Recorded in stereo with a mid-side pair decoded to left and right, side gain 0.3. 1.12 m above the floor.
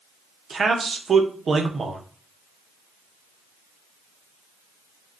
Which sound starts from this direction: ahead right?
A man speaking, at 0.5 s.